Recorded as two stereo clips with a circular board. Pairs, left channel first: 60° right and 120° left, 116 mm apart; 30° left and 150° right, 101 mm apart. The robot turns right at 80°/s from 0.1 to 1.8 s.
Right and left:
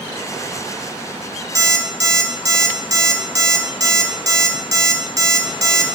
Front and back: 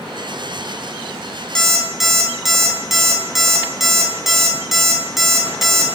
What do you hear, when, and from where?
1.6 s an alarm clock: 105° left, 0.5 m; by 5.9 s 125° left, 0.5 m